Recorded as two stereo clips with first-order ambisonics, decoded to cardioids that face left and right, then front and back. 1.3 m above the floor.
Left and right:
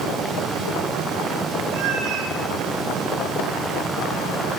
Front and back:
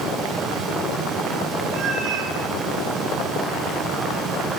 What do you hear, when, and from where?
1.7 s a cat meowing: 125° right, 8 m